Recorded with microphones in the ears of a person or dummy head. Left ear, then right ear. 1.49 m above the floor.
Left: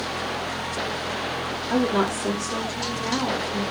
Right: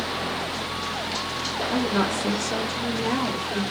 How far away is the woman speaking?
About 0.5 m.